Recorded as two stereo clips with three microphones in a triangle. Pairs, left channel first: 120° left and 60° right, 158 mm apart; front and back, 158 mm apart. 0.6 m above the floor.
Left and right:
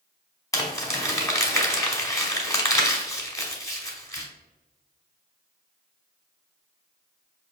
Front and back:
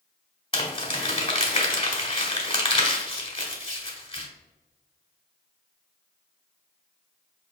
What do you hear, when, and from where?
0.5 s crumpling: 50° left, 1.1 m